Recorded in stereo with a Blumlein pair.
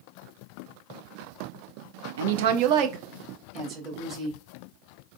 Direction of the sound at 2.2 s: 60° right.